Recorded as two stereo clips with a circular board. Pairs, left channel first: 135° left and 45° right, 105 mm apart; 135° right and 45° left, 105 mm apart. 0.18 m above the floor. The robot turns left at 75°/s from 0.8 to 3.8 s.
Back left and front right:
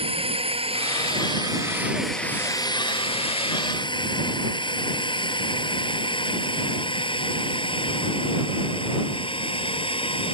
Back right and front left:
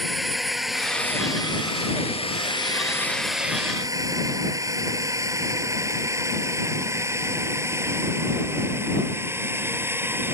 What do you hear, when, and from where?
0.0 s a drone: 45° right; by 10.3 s 110° left